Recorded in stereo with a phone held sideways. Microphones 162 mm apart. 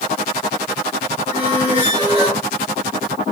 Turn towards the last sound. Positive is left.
turn(degrees=-15)  # may be behind; listen again after turning